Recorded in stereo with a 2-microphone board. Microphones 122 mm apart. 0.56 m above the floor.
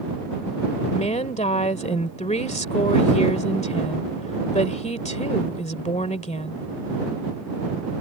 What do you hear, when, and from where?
0.9 s a woman speaking: 70° left (ahead or behind)